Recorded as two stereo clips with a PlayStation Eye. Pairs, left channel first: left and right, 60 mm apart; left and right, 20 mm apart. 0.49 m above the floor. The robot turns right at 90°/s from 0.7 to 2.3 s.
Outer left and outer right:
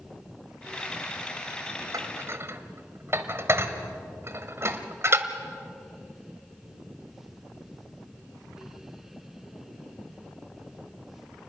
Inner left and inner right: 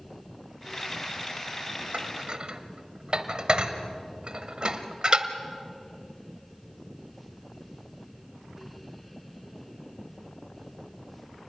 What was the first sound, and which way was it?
Dishes clattering, 75° right (ahead or behind).